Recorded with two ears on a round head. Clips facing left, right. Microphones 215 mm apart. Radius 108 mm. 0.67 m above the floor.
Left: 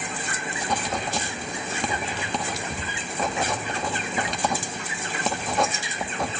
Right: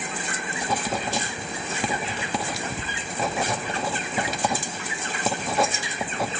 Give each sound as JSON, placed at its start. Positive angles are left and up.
{"t": 0.6, "sound": "writing", "side_deg": -5, "distance_m": 1.0}